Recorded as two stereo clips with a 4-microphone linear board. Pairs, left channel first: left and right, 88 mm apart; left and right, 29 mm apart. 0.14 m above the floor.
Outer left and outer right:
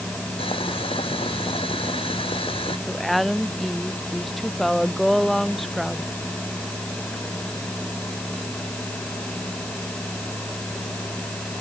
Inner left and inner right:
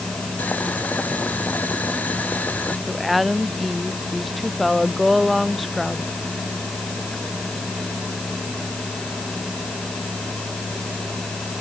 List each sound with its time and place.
0.4 s boiling: 80° left
2.9 s a woman speaking: centre (ahead or behind)